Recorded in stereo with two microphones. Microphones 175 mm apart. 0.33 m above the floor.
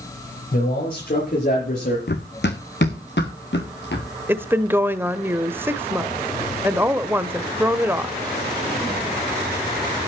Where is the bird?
I don't hear a bird.